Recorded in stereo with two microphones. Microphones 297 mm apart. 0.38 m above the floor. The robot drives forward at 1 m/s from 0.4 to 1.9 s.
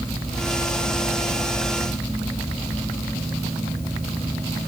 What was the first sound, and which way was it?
Only background noise.